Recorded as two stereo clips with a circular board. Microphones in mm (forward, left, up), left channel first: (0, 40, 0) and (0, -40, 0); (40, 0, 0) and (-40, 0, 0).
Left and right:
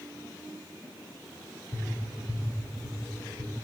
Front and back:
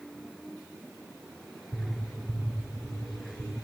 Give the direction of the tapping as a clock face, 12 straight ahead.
10 o'clock.